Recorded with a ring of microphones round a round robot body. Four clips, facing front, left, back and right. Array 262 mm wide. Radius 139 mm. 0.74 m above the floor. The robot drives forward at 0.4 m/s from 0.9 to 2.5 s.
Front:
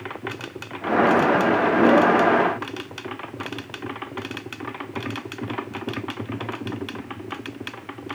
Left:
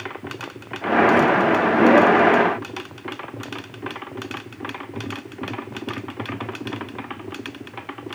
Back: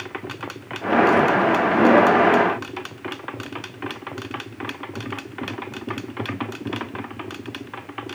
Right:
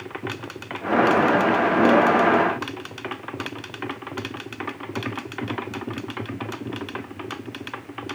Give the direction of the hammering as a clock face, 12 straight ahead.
No hammering in this recording.